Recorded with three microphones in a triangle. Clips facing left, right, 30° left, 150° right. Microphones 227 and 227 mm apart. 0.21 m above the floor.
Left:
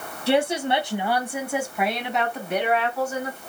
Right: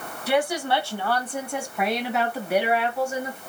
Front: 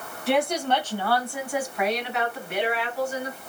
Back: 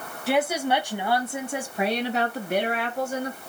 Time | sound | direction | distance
0.3 | a woman speaking | 120° left | 1.8 m